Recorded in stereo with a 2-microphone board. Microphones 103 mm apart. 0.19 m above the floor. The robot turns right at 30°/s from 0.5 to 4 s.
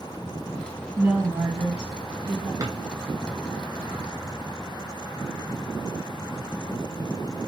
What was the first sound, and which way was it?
A woman speaking, 165° right.